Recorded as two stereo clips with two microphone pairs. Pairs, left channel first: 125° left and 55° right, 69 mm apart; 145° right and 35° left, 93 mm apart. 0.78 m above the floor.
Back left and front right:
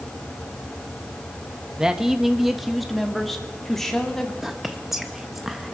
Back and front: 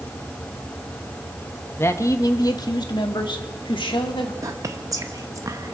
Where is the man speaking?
125° right, 0.9 m; by 4.3 s 150° right, 2 m.